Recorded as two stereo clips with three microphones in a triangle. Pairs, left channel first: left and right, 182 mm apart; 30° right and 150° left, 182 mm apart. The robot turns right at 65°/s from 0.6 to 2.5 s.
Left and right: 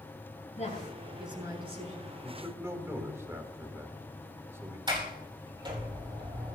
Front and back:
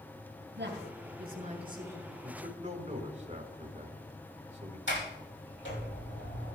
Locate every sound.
0.6 s a woman speaking: 140° left, 7.5 m; by 2.1 s 120° right, 7.5 m
2.2 s a man speaking: straight behind, 3 m; by 4.8 s 165° right, 3 m
4.9 s a sliding door: 25° right, 4.5 m